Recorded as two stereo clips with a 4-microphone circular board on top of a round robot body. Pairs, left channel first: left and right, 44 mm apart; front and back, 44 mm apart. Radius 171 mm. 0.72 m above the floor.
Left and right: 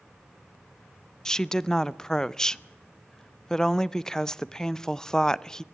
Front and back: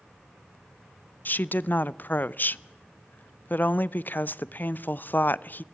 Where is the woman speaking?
20° left, 0.6 m.